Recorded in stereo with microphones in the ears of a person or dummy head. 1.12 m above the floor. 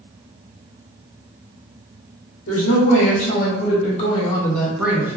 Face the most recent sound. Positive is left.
turn(degrees=-10)  # may be behind; listen again after turning